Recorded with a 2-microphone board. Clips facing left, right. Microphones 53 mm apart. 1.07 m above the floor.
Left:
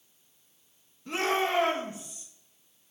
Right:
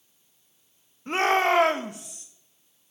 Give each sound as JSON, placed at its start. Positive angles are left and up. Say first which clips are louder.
{"t": 1.1, "sound": "a shout", "louder": "right 6 dB", "side_deg": -40, "distance_m": 0.8}